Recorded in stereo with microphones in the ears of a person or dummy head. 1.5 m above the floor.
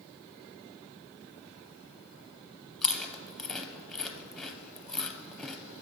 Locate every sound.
2.8 s chewing: 10° left (ahead or behind), 0.5 m